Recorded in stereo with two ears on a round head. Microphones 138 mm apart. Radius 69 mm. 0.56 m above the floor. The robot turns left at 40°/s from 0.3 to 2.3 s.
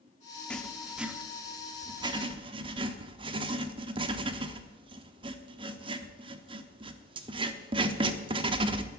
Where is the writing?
5° left (ahead or behind), 1.0 m; by 8.9 s 35° right (ahead or behind), 1.0 m.